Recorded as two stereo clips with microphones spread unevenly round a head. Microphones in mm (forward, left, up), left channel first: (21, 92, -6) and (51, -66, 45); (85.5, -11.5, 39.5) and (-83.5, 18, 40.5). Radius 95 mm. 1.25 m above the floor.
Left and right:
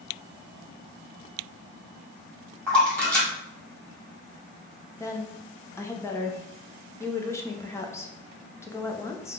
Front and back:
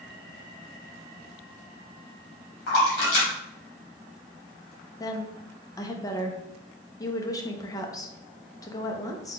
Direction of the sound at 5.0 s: 55° left.